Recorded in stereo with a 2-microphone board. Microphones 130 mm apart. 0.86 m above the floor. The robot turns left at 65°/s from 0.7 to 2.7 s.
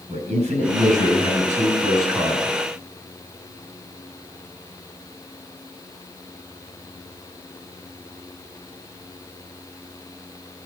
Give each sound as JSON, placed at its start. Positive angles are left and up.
{"t": 0.1, "sound": "a man speaking", "azimuth_deg": -70, "distance_m": 6.5}